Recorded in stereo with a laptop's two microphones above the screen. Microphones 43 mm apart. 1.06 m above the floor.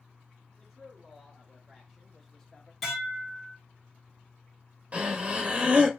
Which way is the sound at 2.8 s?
5° right (ahead or behind).